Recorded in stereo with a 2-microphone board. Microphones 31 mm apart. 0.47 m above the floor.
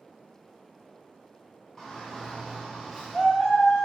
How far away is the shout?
About 1.6 m.